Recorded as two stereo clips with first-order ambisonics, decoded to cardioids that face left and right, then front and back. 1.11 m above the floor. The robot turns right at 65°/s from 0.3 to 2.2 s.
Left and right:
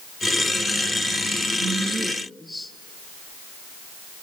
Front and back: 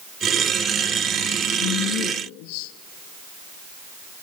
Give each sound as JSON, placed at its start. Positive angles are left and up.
{"t": 1.6, "sound": "a woman speaking", "azimuth_deg": -35, "distance_m": 0.9}